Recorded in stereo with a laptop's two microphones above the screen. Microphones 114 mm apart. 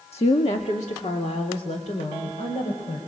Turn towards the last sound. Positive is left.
turn(degrees=85)